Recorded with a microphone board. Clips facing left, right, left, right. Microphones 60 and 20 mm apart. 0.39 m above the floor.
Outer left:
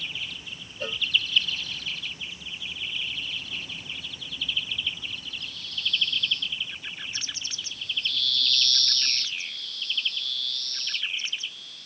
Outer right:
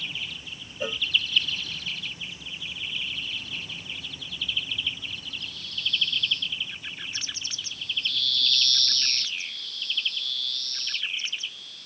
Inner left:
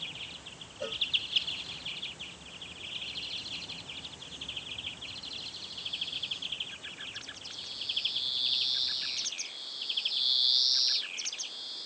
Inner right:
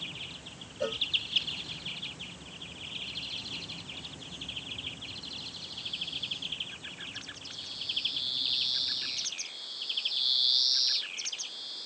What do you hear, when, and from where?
0.8 s a cowbell: 10° right (ahead or behind)